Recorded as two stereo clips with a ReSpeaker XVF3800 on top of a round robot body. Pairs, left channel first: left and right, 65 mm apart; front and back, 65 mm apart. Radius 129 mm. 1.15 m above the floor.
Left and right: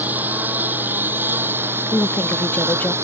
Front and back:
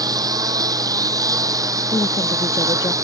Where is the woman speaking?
25° left.